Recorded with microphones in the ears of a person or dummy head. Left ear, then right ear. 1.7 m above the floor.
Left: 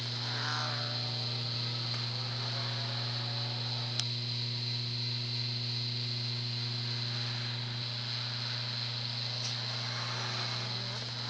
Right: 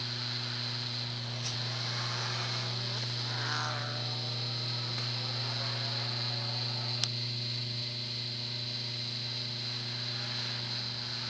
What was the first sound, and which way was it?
Only background noise.